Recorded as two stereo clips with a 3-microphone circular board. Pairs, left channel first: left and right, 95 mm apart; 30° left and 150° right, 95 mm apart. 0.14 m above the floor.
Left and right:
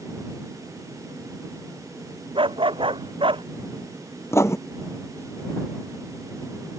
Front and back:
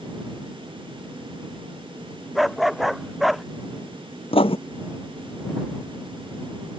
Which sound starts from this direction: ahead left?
Writing, at 4.3 s.